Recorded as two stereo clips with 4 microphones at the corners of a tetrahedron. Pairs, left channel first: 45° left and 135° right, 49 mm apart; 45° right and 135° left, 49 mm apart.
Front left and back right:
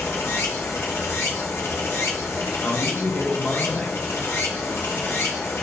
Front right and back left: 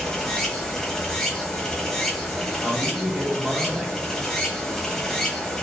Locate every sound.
0.0 s running water: 35° left, 0.8 m
2.6 s a man speaking: 80° left, 0.9 m